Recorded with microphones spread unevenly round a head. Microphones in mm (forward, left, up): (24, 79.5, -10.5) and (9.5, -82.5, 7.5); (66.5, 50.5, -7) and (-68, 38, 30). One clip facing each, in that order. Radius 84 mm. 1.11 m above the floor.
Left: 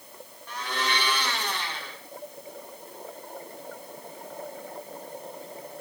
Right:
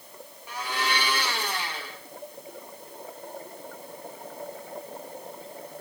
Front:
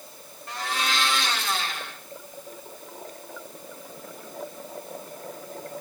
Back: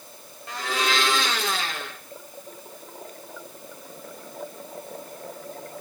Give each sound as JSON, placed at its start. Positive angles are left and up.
{"t": 0.5, "sound": "a blender", "azimuth_deg": 180, "distance_m": 1.5}